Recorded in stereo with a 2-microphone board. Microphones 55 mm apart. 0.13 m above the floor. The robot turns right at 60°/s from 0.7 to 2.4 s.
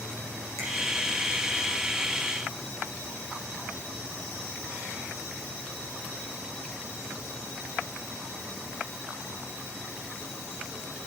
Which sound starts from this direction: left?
A finger snap, at 0.6 s.